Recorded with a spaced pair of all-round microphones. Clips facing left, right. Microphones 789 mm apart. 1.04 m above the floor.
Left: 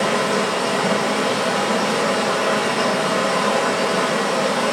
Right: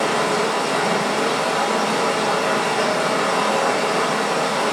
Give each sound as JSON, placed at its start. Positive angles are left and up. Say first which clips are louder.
{"t": 0.0, "sound": "running water", "louder": "left 1 dB", "side_deg": 45, "distance_m": 2.0}